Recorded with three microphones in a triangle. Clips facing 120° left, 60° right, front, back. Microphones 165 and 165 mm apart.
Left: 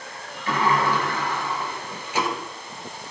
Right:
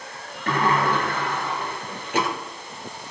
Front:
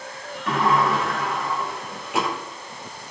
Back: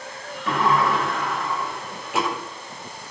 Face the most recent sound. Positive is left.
turn(degrees=-90)